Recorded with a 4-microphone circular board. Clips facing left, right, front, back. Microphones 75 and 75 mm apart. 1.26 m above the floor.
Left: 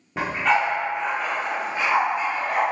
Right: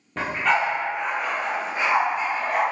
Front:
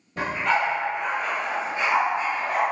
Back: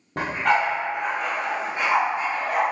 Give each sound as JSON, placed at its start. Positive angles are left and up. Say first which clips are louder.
{"t": 0.2, "sound": "a dog barking", "louder": "left 1 dB, back 2 dB", "azimuth_deg": 170, "distance_m": 1.2}